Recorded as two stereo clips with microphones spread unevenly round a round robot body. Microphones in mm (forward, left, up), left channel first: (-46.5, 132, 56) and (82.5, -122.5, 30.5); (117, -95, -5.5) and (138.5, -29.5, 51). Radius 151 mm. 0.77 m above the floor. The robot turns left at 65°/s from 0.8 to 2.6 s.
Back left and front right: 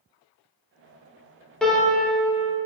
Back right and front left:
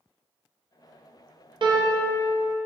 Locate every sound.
1.6 s a piano: 25° left, 0.9 m; by 2.2 s 15° right, 0.9 m